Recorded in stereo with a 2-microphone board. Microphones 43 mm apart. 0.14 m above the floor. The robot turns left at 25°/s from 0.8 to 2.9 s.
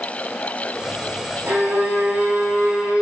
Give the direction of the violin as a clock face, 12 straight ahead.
4 o'clock.